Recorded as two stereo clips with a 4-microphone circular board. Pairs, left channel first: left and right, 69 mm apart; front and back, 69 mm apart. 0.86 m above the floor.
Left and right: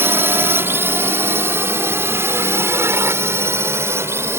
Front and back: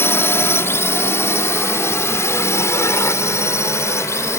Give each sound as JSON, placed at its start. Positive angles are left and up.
{"t": 0.0, "sound": "a drone", "azimuth_deg": -45}